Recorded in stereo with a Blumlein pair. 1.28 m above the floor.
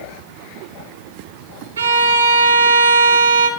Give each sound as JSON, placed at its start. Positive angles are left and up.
{"t": 1.8, "sound": "a violin", "azimuth_deg": -70, "distance_m": 1.0}